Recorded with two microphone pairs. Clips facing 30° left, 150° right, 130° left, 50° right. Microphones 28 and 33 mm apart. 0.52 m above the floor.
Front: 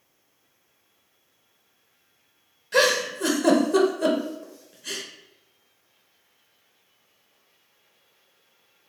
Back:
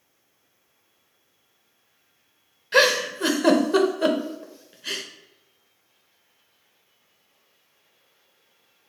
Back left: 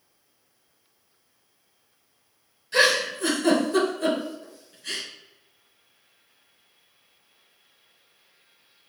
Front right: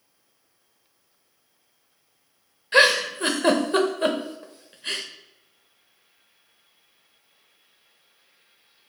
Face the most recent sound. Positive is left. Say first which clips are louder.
# back 2 dB, front right 3 dB
turn(degrees=-95)